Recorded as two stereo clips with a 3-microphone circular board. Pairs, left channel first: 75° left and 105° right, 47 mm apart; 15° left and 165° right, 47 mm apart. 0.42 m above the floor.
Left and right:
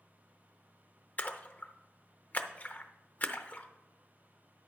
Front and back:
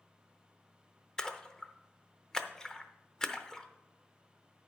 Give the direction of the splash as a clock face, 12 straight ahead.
9 o'clock.